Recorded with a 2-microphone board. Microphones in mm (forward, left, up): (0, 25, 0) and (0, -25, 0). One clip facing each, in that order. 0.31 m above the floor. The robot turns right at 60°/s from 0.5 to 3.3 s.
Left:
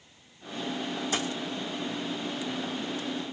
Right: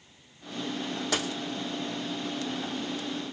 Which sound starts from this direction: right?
A dropped coin, at 1.1 s.